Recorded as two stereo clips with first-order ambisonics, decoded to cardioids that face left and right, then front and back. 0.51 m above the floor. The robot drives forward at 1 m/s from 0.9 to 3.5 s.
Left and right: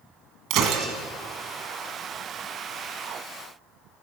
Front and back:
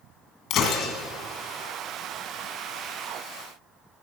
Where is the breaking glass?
50° right, 1.6 m.